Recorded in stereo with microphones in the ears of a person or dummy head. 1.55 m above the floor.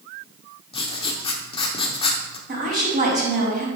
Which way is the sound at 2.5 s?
50° right (ahead or behind).